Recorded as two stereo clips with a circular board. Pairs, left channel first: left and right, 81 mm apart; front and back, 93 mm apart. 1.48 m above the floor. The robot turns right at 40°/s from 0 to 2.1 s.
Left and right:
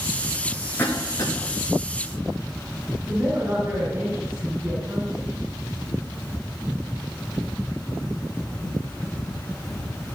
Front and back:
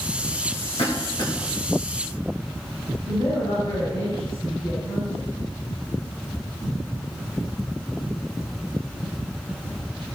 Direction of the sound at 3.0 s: 30° right.